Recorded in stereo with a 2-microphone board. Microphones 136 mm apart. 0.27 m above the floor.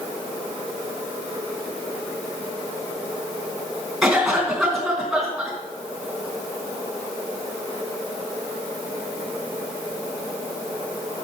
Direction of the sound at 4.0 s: Centre (ahead or behind).